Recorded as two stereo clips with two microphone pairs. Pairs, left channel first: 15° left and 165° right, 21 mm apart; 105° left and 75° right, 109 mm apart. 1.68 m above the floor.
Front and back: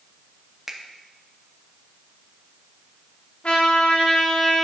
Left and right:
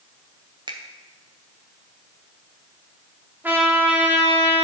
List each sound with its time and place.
0.7 s a finger snap: 100° right, 0.9 m
3.4 s a trumpet: straight ahead, 2.5 m